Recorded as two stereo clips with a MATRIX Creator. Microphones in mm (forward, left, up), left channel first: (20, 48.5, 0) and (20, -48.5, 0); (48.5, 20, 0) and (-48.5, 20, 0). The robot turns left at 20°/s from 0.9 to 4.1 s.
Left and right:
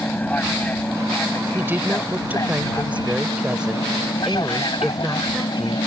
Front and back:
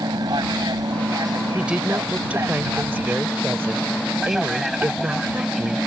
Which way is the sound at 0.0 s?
160° left.